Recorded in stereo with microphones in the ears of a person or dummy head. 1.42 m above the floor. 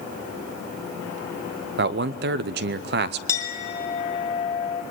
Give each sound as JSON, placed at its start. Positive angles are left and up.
{"t": 1.8, "sound": "a man speaking", "side_deg": -50, "distance_m": 0.6}
{"t": 3.3, "sound": "a clink", "side_deg": 20, "distance_m": 2.0}